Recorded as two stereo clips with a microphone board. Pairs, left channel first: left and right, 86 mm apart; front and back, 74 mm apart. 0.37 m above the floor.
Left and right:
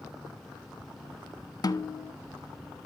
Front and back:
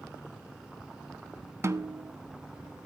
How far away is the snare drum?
About 0.5 m.